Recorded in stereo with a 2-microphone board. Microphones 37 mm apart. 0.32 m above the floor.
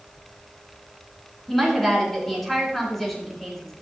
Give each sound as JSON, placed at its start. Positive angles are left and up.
{"t": 1.5, "sound": "a woman speaking", "side_deg": 5, "distance_m": 3.5}